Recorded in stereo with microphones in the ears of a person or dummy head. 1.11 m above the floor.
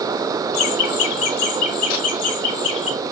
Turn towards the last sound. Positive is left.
turn(degrees=75)  # may be behind; listen again after turning